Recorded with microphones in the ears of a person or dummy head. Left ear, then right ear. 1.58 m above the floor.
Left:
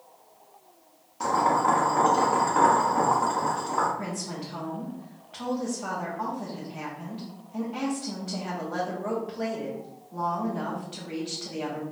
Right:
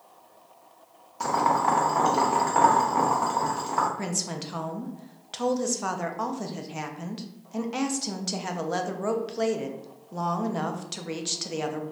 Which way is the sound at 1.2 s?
15° right (ahead or behind).